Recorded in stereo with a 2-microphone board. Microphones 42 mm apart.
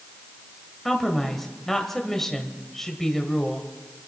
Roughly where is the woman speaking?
Centre.